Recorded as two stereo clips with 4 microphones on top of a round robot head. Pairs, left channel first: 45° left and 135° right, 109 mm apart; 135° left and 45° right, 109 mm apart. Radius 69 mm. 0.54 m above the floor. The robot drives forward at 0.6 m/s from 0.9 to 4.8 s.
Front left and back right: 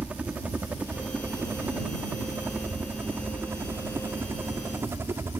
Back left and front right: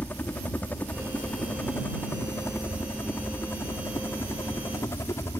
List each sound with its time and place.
0.0 s a helicopter: 175° left